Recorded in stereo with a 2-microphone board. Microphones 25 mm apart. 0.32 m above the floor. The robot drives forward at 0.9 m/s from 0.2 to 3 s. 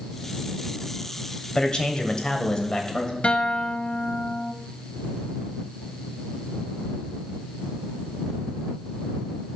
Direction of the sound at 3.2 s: 55° left (ahead or behind).